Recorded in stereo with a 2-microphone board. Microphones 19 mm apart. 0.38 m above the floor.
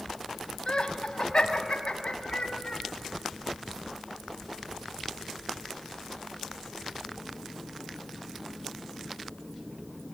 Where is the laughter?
55° left (ahead or behind), 2.5 m; by 2.8 s 65° left (ahead or behind), 3.5 m.